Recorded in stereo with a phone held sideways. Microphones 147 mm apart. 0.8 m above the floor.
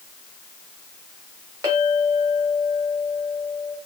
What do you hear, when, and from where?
1.6 s a clink: 30° right (ahead or behind), 1.9 m